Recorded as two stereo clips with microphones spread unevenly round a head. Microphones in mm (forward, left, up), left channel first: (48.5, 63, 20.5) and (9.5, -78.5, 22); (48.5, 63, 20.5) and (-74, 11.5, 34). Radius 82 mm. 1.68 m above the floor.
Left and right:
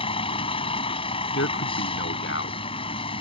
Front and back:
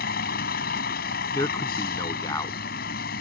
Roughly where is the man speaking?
Left.